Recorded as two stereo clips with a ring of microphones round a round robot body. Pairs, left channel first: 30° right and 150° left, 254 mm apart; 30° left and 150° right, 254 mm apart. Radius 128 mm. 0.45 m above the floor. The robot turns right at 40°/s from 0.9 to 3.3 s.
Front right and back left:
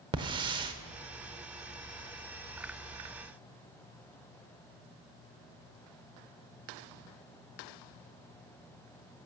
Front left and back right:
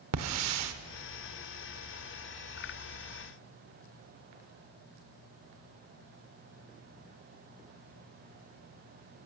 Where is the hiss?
140° right, 0.7 m.